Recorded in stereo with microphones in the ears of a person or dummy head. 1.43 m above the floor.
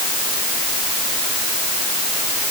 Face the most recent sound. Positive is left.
No sound to turn to.